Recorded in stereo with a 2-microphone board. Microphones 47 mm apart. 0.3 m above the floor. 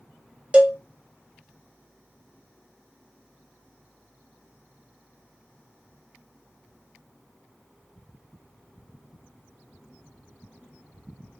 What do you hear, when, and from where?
0.5 s a cowbell: 25° right (ahead or behind), 0.6 m